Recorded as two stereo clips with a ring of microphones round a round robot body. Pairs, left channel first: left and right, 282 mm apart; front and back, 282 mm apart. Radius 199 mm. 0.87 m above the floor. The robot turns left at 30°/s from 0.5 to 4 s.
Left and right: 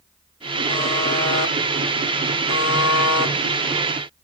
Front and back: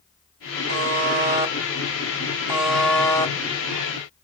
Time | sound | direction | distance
0.7 | a buzzer | 150° left | 3 m